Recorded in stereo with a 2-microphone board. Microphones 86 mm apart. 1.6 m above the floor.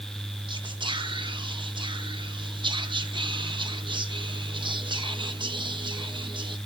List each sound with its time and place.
0.5 s whispering: 70° right (ahead or behind), 0.9 m